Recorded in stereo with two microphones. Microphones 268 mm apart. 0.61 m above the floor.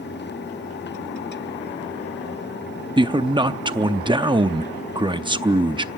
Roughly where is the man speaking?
Centre.